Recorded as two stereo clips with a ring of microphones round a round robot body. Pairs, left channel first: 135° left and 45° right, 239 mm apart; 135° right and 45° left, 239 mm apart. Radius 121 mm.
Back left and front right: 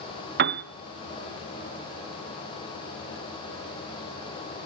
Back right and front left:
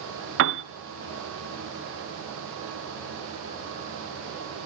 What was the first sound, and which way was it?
A piano, 5° left.